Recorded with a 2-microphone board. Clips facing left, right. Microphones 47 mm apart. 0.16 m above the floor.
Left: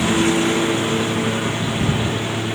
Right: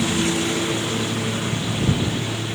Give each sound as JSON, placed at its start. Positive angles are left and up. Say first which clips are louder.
{"t": 0.0, "sound": "a lawn mower", "louder": "left 5 dB", "side_deg": 25}